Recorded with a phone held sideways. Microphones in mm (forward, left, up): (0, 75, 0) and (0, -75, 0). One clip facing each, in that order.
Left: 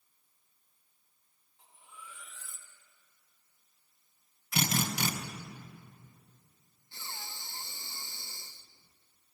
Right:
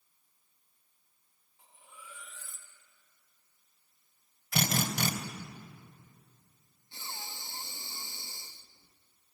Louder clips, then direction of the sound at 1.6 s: Left 1 dB; 5° right (ahead or behind).